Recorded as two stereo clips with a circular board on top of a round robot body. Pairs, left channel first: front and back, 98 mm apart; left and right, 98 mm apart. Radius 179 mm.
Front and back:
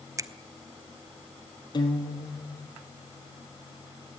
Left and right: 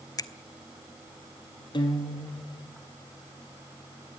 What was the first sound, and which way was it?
A finger snap, 130° left.